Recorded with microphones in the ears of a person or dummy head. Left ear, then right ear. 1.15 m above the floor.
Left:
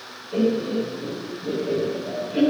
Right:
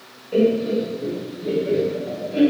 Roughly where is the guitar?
I don't hear a guitar.